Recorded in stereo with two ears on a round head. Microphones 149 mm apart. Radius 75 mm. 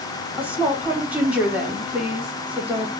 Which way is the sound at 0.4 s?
10° right (ahead or behind).